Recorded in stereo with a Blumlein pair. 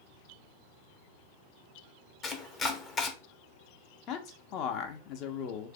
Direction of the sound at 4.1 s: 40° left.